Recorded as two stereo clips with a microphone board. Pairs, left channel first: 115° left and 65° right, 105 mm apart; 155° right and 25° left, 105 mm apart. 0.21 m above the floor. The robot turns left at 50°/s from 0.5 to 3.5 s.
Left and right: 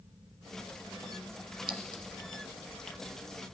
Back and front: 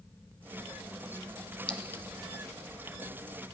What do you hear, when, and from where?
1.7 s a clink: 80° right, 1.0 m; by 2.0 s 100° right, 1.0 m